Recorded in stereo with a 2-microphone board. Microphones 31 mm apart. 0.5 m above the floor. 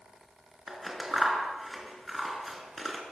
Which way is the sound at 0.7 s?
Centre (ahead or behind).